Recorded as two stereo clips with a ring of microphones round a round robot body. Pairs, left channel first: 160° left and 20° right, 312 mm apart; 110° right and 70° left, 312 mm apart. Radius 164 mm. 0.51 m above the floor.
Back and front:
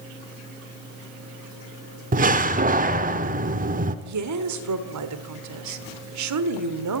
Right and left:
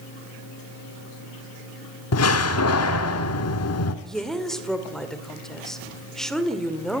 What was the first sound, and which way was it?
A door slam, 80° right.